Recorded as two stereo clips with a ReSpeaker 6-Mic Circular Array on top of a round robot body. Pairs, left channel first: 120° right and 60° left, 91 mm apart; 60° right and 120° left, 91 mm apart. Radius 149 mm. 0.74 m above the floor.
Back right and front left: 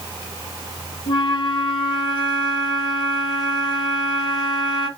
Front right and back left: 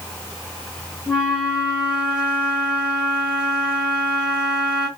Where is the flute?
160° right, 1.8 m.